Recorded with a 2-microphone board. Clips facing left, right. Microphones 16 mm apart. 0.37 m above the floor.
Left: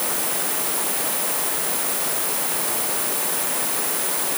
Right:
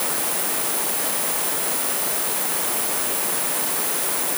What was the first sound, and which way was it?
Only background noise.